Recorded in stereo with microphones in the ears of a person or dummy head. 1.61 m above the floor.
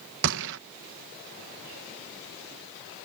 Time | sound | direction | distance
0.2 | a gunshot | 60° right (ahead or behind) | ?